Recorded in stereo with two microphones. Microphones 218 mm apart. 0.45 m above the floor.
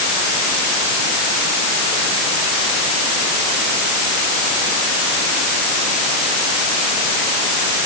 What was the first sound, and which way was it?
Only background noise.